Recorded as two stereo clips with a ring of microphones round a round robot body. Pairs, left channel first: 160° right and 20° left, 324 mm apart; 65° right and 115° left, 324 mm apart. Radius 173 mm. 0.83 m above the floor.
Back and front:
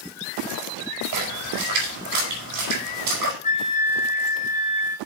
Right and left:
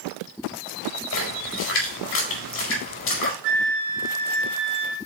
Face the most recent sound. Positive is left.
turn(degrees=135)